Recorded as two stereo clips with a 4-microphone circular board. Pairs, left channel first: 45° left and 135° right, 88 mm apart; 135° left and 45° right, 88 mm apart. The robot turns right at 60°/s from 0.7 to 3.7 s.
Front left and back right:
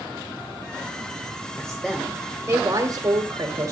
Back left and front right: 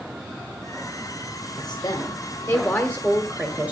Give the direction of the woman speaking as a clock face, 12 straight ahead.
8 o'clock.